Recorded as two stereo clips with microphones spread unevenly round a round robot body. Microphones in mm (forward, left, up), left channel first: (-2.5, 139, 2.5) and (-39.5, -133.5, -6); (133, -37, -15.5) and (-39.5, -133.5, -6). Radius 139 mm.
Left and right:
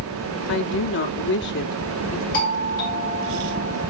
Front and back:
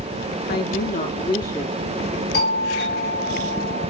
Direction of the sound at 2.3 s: 25° left.